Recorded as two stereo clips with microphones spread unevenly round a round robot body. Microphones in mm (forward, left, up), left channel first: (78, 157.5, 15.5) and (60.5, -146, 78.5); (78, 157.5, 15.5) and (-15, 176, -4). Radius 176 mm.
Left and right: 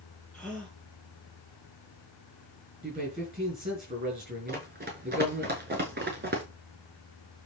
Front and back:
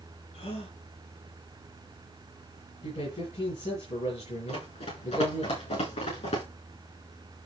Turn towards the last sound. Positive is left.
turn(degrees=-35)